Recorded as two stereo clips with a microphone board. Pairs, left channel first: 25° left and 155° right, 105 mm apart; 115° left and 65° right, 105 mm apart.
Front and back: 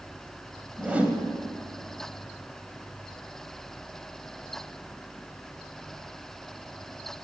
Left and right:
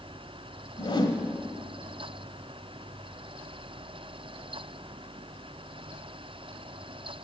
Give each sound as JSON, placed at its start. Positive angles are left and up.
{"t": 0.8, "sound": "a whoosh", "azimuth_deg": 130, "distance_m": 1.2}